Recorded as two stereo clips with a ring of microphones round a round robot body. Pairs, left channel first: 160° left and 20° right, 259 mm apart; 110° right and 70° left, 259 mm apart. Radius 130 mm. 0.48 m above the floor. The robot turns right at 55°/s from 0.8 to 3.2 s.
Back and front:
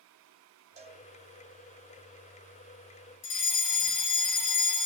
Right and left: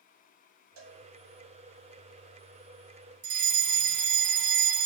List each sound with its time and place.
0.8 s a cowbell: 40° left, 3 m; by 1.0 s 55° left, 3 m
3.2 s a fire alarm: 115° left, 3.5 m